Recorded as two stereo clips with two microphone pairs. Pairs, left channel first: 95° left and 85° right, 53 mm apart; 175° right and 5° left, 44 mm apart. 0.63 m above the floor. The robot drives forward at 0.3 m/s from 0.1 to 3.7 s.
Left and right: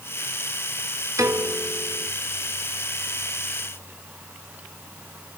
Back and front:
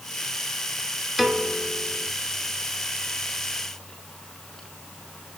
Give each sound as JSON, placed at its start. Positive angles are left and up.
{"t": 1.2, "sound": "a piano", "azimuth_deg": -80, "distance_m": 1.1}